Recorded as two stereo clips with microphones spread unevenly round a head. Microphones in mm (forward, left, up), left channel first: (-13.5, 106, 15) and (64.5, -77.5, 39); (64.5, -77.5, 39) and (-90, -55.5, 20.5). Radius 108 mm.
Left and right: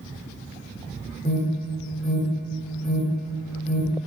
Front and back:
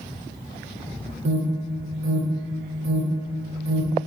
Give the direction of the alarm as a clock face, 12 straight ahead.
6 o'clock.